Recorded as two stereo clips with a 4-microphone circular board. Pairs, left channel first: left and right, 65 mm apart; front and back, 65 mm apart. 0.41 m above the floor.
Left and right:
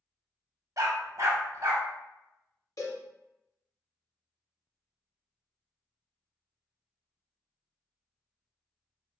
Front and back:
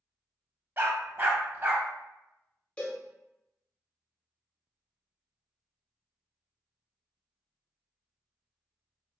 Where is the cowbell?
70° left, 0.8 m.